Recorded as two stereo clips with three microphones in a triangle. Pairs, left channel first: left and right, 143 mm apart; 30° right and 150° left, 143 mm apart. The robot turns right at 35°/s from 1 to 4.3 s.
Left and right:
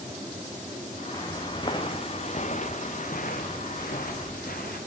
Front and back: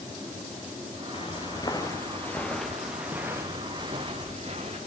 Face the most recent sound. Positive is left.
turn(degrees=100)